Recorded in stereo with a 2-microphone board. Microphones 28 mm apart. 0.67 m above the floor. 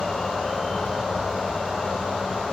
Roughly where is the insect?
Left.